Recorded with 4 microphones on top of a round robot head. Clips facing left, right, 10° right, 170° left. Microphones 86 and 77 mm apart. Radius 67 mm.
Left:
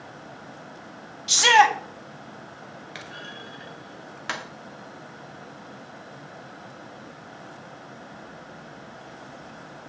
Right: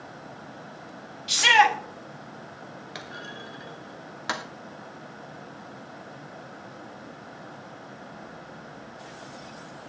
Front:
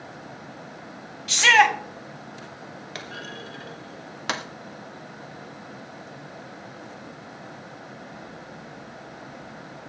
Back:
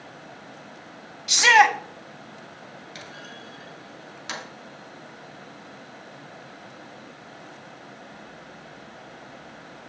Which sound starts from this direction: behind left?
A shout, at 1.3 s.